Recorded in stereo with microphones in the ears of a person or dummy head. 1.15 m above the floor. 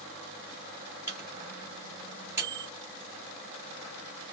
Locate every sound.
1.1 s a microwave: 20° right (ahead or behind), 3.5 m